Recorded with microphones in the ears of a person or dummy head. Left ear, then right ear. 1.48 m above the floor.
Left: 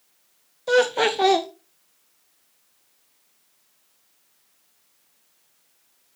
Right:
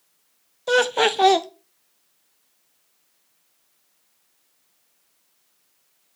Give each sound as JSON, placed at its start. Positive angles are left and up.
{"t": 0.7, "sound": "laughter", "side_deg": -25, "distance_m": 0.6}